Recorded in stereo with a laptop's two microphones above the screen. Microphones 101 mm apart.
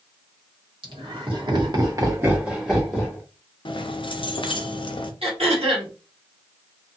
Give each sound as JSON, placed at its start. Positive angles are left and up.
{"t": 0.8, "sound": "laughter", "side_deg": -60, "distance_m": 1.4}
{"t": 3.6, "sound": "keys jangling", "side_deg": 55, "distance_m": 0.5}
{"t": 5.2, "sound": "throat clearing", "side_deg": -70, "distance_m": 1.3}